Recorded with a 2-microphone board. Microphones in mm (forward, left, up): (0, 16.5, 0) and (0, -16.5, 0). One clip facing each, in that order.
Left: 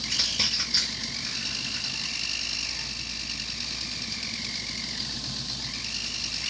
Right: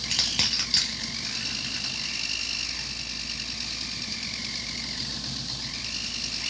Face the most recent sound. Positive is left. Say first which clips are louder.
# right 1 dB
turn(degrees=-65)  # may be behind; listen again after turning